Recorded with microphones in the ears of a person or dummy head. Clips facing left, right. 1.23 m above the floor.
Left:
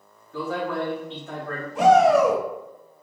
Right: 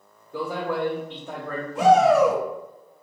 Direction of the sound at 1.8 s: 65° left (ahead or behind).